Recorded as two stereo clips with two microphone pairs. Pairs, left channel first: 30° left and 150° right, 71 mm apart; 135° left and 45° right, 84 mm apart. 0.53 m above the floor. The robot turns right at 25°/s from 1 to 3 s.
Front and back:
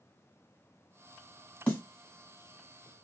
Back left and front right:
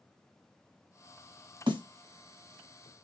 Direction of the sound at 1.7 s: 40° right.